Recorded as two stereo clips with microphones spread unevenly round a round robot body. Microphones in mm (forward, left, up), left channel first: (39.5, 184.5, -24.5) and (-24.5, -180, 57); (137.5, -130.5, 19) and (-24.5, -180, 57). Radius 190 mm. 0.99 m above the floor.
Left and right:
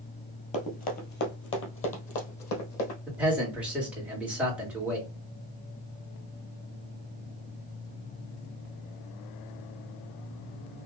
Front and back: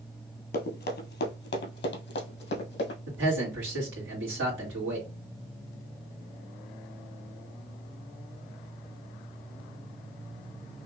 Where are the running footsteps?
Straight ahead, 1.6 m; by 3.0 s 25° left, 2.5 m.